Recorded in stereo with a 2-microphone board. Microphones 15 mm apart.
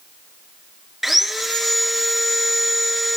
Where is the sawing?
25° right (ahead or behind), 1.1 m.